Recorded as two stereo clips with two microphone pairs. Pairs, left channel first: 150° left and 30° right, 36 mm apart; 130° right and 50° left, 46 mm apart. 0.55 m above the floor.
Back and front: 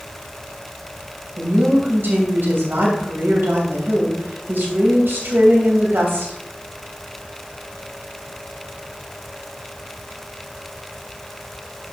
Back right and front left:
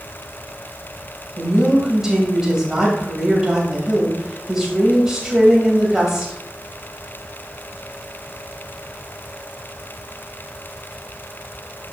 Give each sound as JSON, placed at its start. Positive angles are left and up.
{"t": 1.4, "sound": "a woman speaking", "azimuth_deg": -25, "distance_m": 2.5}